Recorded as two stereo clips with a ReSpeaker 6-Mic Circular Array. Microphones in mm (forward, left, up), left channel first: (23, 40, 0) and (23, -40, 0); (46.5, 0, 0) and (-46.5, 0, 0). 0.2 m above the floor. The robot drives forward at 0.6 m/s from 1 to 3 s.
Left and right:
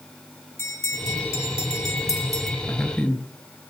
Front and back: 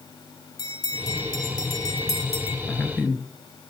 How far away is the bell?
About 2.5 m.